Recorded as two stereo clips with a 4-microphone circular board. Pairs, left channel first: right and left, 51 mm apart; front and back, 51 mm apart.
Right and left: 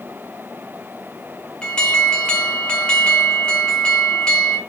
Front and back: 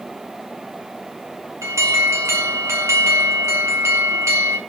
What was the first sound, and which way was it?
An alarm, 160° right.